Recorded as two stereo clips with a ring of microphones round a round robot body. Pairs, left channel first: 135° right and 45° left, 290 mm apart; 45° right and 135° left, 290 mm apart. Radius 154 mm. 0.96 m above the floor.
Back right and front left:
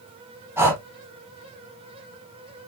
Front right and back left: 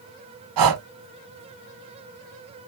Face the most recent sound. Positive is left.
turn(degrees=125)